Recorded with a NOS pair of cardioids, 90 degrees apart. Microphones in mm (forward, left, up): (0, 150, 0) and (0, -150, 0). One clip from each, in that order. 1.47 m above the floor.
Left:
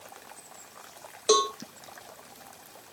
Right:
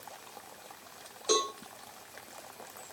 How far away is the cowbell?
About 1.8 m.